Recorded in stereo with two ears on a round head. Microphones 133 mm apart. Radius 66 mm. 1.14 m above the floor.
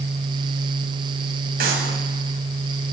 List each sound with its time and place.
1.6 s a clap: 70° right (ahead or behind), 7.5 m